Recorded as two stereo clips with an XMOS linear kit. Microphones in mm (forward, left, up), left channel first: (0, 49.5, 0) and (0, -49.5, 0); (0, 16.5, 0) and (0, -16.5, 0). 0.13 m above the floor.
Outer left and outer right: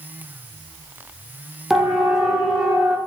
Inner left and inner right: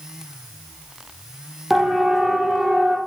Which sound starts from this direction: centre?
A siren, at 1.7 s.